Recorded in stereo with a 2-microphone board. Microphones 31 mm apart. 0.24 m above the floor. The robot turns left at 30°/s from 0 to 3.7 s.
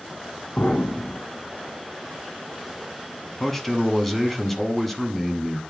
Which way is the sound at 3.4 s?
15° left (ahead or behind).